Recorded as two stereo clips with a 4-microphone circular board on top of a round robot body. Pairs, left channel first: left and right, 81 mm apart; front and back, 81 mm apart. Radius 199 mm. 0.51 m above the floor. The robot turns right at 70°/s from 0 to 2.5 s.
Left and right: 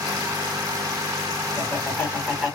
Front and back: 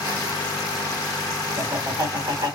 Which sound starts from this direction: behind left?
Laughter, at 1.6 s.